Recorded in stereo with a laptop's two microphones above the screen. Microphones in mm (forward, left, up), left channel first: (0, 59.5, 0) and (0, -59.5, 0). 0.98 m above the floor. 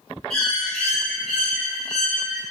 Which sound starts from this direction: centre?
A bird, at 0.3 s.